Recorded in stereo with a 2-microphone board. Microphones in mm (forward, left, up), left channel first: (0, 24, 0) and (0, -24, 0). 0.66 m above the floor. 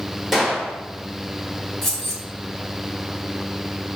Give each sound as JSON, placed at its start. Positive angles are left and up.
{"t": 0.3, "sound": "a gunshot", "side_deg": -5, "distance_m": 1.2}
{"t": 1.8, "sound": "keys jangling", "side_deg": 5, "distance_m": 1.9}